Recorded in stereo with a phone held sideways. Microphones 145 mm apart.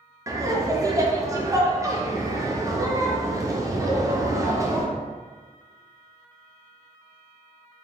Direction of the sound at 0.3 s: 20° right (ahead or behind).